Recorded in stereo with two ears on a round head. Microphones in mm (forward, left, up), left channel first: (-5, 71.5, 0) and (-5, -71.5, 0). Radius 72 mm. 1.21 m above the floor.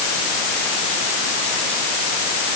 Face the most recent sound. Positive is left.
No sound to turn to.